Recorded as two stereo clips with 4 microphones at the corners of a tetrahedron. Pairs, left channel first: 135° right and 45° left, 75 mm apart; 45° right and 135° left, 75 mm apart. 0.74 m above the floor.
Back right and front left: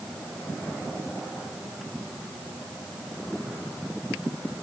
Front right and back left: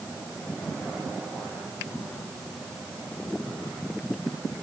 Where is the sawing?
No sawing in this recording.